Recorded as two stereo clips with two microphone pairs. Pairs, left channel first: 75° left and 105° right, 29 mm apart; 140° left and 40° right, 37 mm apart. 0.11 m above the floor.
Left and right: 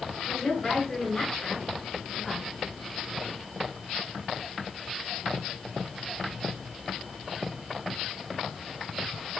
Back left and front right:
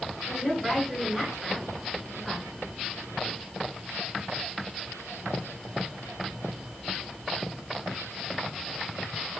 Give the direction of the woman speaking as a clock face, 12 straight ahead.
11 o'clock.